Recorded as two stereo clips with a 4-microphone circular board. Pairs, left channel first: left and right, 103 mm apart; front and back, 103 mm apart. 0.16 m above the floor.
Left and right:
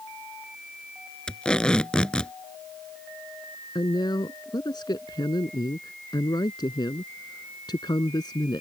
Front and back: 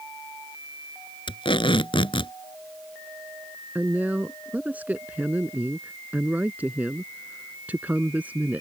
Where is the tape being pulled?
10° left.